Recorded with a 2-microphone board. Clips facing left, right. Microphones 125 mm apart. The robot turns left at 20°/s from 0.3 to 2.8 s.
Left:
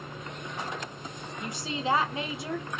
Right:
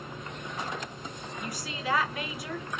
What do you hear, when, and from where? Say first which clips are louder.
1.4 s a woman speaking: left 4 dB; 25° left (ahead or behind), 0.8 m